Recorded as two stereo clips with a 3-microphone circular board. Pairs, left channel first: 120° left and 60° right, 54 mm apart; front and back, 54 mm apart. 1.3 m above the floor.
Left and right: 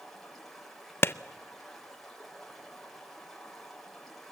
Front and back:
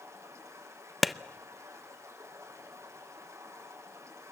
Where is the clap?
90° left, 0.5 m.